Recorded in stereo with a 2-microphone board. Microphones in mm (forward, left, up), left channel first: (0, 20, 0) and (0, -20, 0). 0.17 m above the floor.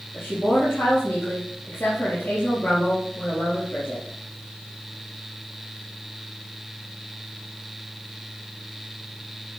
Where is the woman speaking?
65° left (ahead or behind), 3 m.